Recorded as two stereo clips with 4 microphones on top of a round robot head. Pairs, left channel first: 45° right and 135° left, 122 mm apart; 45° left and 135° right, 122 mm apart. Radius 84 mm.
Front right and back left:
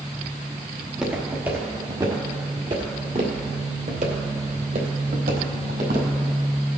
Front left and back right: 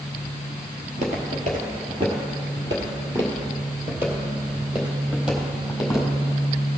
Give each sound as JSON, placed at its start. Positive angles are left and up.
{"t": 0.8, "sound": "footsteps", "azimuth_deg": -140, "distance_m": 1.8}